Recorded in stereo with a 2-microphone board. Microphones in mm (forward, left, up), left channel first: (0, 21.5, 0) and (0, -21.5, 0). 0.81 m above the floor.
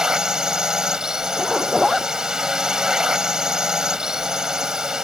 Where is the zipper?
Centre (ahead or behind).